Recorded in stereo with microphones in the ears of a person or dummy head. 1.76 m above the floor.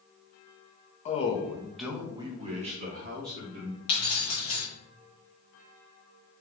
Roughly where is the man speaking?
Left.